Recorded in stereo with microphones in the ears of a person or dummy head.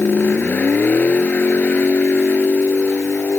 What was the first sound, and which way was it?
A vehicle, 5° left (ahead or behind).